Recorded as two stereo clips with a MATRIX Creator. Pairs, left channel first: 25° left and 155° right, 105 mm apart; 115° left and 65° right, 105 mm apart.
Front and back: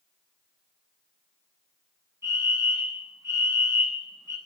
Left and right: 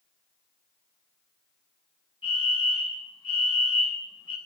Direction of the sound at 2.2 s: 140° left.